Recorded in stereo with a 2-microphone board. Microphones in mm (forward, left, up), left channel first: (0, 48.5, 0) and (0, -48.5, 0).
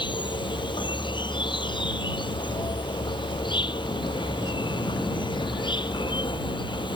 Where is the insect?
55° left (ahead or behind).